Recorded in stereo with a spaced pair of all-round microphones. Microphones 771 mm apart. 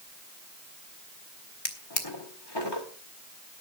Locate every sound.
1.6 s a drawer: 30° left (ahead or behind), 1.8 m